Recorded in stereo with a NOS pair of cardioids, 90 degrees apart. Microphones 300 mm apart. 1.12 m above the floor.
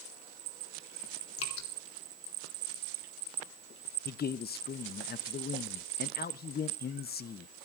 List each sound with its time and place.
1.4 s dripping: 50° left, 3.5 m
4.0 s a man speaking: 30° left, 0.8 m